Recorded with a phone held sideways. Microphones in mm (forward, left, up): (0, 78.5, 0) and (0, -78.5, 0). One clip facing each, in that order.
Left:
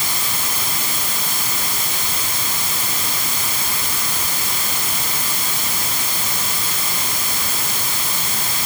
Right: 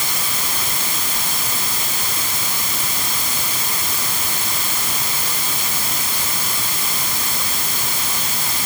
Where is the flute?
No flute in this recording.